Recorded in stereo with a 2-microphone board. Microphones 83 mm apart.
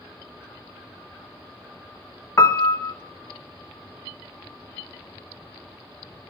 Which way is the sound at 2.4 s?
35° left (ahead or behind).